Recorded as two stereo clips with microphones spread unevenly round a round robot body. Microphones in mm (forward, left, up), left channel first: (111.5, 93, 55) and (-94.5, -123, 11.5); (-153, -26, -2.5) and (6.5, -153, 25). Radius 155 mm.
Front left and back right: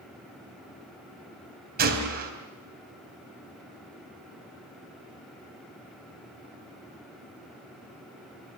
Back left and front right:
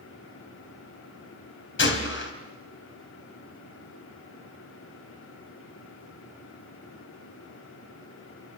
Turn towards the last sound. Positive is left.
turn(degrees=165)